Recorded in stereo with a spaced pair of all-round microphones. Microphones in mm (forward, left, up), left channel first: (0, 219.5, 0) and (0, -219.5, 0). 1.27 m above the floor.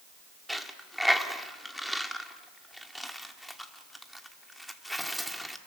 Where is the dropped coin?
Centre (ahead or behind), 1.3 m.